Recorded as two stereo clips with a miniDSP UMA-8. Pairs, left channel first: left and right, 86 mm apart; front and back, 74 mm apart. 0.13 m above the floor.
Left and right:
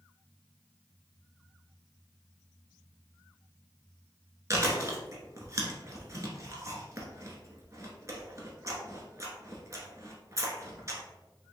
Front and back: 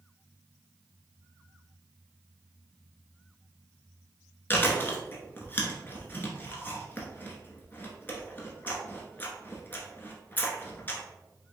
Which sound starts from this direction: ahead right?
Chewing, at 4.5 s.